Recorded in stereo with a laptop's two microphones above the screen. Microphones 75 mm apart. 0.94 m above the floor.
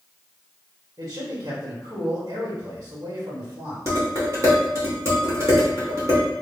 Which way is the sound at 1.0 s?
60° right (ahead or behind).